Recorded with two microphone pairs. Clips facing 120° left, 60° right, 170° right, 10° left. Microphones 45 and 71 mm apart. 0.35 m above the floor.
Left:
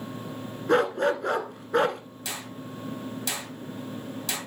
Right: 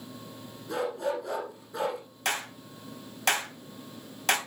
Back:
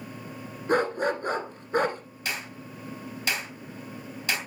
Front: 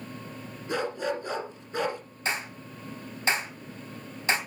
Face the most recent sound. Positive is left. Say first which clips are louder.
# right 5 dB, front 3 dB
turn(degrees=-45)